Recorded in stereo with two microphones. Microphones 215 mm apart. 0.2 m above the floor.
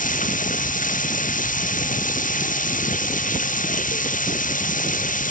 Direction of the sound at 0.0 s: 40° left (ahead or behind).